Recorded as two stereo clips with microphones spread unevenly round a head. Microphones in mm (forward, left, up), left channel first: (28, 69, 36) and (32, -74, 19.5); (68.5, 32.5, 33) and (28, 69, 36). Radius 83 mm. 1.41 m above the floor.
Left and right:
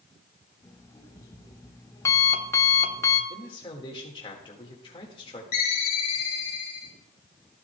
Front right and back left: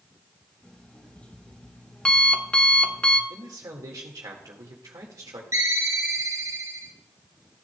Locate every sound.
0.6 s an alarm clock: 25° left, 1.1 m
3.3 s a man speaking: 150° left, 1.8 m
5.5 s a ringtone: 115° left, 1.6 m